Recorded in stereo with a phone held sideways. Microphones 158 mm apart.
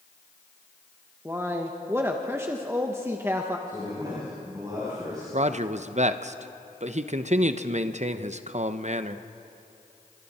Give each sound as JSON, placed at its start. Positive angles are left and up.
{"t": 1.2, "sound": "a man speaking", "side_deg": -15, "distance_m": 1.1}
{"t": 3.7, "sound": "a man speaking", "side_deg": -25, "distance_m": 7.0}
{"t": 5.3, "sound": "a man speaking", "side_deg": -50, "distance_m": 0.8}